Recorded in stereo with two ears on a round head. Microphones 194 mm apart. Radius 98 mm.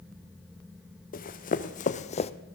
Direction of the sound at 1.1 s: 45° left (ahead or behind).